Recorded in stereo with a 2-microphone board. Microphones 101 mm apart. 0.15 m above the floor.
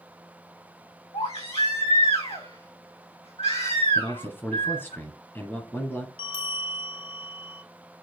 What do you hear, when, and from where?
1.1 s a baby crying: 85° left, 3.5 m
4.0 s a man speaking: 20° left (ahead or behind), 1.6 m
6.2 s a bell: 60° left (ahead or behind), 1.1 m